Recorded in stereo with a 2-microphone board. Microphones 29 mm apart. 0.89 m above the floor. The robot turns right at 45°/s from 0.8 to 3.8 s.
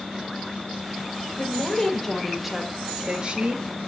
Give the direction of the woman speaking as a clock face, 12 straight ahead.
7 o'clock.